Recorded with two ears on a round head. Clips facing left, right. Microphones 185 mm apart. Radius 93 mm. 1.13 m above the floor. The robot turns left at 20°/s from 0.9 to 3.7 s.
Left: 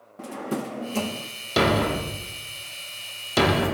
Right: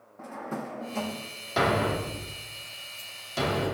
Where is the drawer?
40° left (ahead or behind), 0.6 m.